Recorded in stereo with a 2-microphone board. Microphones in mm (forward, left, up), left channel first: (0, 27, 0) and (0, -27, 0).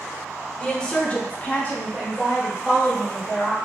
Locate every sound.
0.6 s a woman speaking: 15° left (ahead or behind), 1.2 m